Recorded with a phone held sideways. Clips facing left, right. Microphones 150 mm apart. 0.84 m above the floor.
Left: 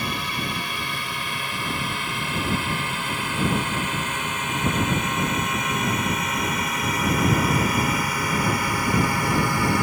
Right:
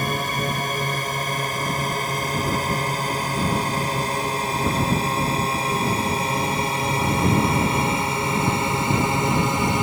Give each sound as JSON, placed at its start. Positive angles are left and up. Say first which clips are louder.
{"t": 0.0, "sound": "a drone", "louder": "right 4 dB", "side_deg": -45}